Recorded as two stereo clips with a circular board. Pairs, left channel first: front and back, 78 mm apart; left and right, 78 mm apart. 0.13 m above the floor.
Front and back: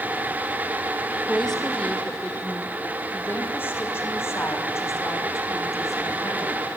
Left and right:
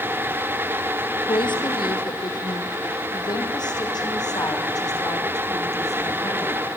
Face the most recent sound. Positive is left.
turn(degrees=45)